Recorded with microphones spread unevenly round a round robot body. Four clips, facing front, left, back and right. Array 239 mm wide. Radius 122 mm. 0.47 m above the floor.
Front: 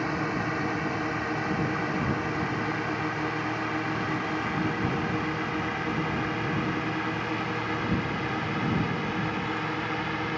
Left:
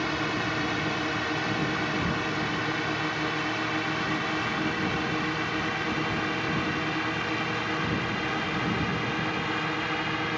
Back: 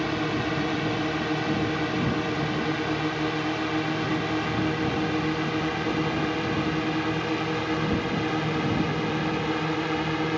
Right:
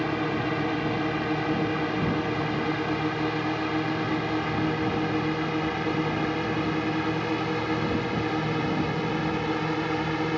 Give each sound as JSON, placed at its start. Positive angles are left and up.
{"t": 0.0, "sound": "a drone", "azimuth_deg": -130}